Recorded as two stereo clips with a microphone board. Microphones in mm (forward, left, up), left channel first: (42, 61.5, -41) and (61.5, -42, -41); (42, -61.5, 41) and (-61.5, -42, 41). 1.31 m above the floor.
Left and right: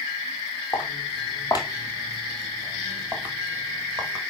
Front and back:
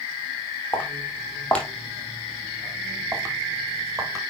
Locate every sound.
0.7 s footsteps: 55° left, 2.5 m; by 4.2 s 140° right, 2.5 m